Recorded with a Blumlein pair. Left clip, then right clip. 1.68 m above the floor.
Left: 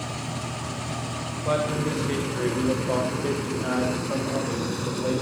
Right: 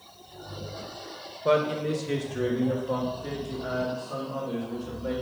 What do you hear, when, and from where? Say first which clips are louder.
1.4 s a man speaking: right 2 dB; 10° right, 1.4 m; by 5.1 s 55° left, 2.5 m